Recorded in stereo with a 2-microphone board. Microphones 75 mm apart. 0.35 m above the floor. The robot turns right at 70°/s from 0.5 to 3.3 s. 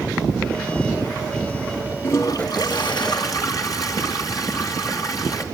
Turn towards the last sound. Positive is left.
turn(degrees=125)